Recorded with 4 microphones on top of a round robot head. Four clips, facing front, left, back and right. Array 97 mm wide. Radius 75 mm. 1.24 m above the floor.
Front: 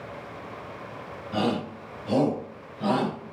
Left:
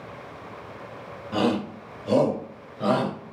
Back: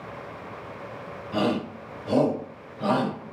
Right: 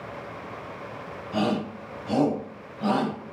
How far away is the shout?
About 5.5 m.